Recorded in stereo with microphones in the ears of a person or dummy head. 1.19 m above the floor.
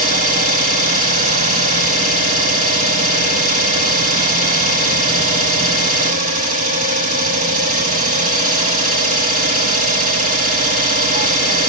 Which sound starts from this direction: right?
An engine running, at 0.0 s.